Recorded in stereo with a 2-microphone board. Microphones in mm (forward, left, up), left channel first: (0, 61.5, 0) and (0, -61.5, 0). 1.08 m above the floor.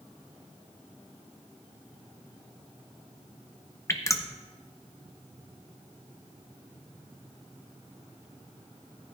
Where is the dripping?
25° left (ahead or behind), 0.8 m.